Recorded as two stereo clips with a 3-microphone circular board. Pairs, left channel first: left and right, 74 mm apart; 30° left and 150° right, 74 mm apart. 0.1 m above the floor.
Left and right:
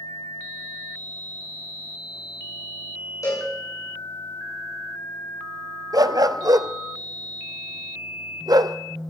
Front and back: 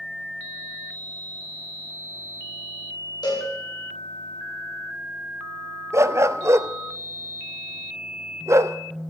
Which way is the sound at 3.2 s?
45° left.